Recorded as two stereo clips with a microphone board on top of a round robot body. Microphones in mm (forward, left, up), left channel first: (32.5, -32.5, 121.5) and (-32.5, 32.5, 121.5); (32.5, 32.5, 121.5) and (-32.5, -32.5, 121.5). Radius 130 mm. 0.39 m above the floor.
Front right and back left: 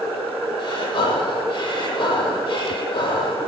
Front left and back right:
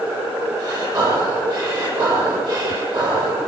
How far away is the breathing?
About 8 m.